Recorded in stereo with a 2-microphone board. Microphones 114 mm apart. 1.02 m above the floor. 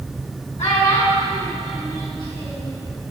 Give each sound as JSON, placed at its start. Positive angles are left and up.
{"t": 0.6, "sound": "a child speaking", "side_deg": 80, "distance_m": 1.5}